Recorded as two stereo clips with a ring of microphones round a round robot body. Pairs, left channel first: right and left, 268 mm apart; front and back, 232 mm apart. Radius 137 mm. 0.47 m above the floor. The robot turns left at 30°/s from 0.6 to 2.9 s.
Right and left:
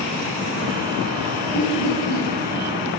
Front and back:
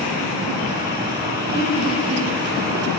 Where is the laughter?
75° right, 3.5 m; by 2.2 s 95° right, 3.5 m.